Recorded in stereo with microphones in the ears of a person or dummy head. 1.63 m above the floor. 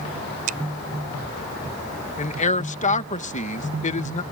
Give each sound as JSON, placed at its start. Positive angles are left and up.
{"t": 0.5, "sound": "a finger snap", "side_deg": -50}
{"t": 2.2, "sound": "a man speaking", "side_deg": 35}